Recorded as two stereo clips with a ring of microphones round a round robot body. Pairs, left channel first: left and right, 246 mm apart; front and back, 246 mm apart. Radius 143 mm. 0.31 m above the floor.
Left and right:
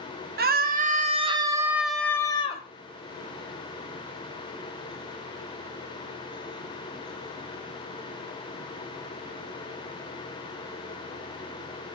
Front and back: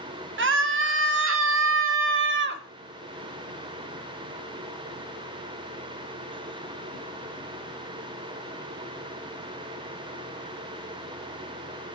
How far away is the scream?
About 2 m.